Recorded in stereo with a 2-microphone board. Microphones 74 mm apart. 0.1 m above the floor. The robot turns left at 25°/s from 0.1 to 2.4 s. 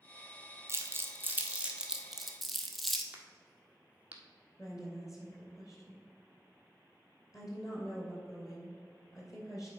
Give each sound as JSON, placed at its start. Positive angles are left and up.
{"t": 0.7, "sound": "crumpling", "side_deg": -40, "distance_m": 0.8}
{"t": 3.1, "sound": "a crack", "side_deg": -20, "distance_m": 1.0}
{"t": 4.6, "sound": "a woman speaking", "side_deg": 45, "distance_m": 2.5}